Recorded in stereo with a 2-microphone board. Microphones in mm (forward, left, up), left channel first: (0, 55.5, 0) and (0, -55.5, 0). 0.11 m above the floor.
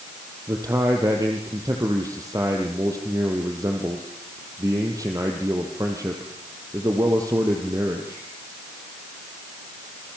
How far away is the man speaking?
About 3.5 m.